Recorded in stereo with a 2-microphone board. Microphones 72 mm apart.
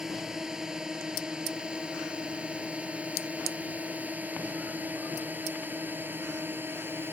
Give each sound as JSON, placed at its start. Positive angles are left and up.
{"t": 0.0, "sound": "a drone", "side_deg": -5}